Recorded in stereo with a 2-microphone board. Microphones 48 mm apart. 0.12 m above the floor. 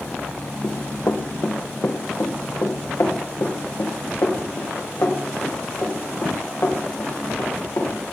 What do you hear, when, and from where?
0.6 s running footsteps: 70° left (ahead or behind), 2 m; by 8.1 s 65° left (ahead or behind), 6 m